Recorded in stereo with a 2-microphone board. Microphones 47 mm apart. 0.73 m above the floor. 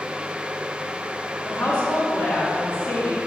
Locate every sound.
1.4 s a woman speaking: 40° left (ahead or behind), 1.6 m